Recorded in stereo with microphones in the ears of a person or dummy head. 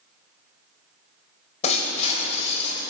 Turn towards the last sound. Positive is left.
turn(degrees=40)  # may be behind; listen again after turning